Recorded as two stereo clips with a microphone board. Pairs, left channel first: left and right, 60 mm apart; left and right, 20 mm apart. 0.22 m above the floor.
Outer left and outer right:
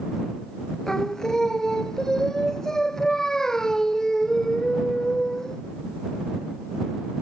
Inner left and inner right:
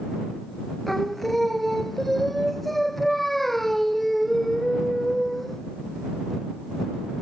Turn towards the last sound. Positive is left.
turn(degrees=10)  # may be behind; listen again after turning